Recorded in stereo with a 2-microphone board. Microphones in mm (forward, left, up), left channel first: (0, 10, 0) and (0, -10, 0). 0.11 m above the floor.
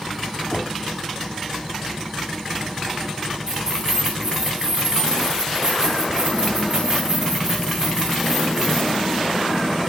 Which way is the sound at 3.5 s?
25° right (ahead or behind).